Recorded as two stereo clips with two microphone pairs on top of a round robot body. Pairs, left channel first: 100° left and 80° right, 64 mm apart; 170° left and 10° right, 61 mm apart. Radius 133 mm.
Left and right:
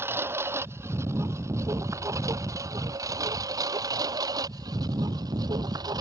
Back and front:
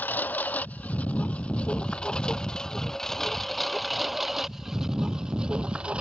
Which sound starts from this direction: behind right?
A lawn mower, at 0.0 s.